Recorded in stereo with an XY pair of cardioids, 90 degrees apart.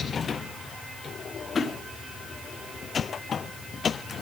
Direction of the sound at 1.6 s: 35° left.